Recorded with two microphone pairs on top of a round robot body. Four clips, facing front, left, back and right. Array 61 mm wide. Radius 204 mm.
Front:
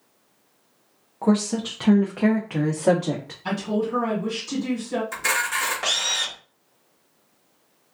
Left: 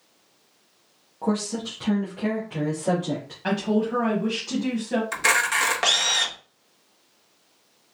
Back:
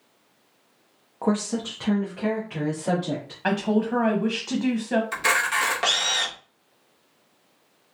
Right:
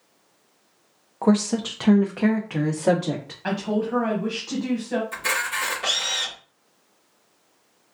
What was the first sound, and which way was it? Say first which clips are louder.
A woman speaking: right 6 dB, front 3 dB; 110° right.